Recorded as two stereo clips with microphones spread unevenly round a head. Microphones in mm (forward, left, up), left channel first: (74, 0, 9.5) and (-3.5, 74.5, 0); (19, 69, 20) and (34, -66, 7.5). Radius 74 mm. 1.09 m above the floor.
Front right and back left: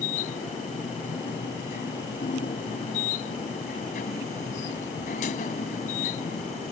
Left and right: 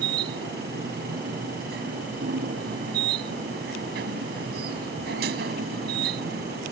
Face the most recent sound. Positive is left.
turn(degrees=-80)